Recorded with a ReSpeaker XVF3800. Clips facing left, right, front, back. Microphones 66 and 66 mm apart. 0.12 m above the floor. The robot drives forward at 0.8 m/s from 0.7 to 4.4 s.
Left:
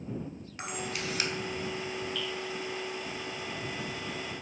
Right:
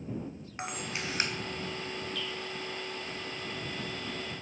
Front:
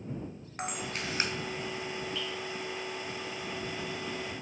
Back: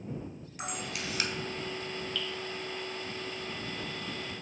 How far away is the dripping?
About 1.7 m.